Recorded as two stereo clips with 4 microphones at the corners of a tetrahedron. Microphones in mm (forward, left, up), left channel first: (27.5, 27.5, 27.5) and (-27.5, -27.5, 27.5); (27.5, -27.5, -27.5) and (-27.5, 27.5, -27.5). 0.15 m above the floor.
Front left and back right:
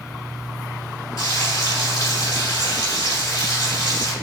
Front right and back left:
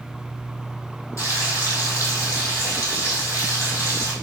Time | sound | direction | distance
1.2 | frying | 5° left | 3 m